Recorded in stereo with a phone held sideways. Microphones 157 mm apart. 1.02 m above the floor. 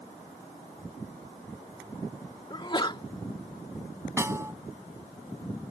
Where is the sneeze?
30° left (ahead or behind).